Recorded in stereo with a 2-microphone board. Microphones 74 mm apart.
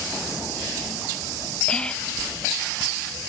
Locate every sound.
1.7 s whispering: 15° left (ahead or behind), 0.6 m